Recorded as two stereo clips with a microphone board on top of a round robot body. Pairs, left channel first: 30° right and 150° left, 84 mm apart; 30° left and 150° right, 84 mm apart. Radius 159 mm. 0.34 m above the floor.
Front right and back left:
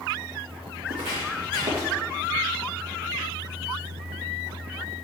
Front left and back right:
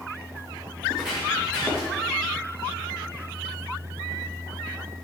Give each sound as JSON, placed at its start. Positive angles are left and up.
{"t": 0.9, "sound": "footsteps", "azimuth_deg": 130, "distance_m": 2.5}